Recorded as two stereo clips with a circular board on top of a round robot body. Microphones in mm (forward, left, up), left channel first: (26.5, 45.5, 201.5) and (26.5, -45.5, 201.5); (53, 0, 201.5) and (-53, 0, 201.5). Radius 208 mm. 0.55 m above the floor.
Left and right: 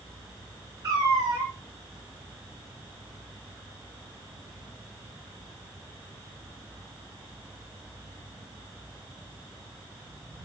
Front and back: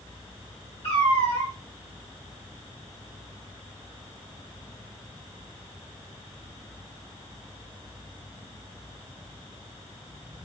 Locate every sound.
0.8 s a cat meowing: 35° right, 1.5 m